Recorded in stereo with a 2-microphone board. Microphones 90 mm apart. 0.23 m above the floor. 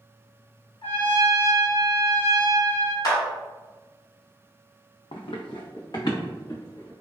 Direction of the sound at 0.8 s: 75° left (ahead or behind).